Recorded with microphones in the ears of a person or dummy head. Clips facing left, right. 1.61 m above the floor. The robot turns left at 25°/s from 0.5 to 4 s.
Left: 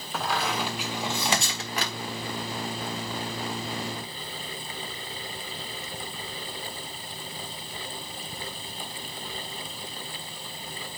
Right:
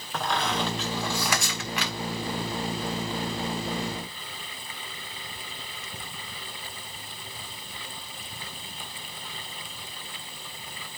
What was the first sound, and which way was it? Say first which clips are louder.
A squeak: right 1 dB; 5° left (ahead or behind).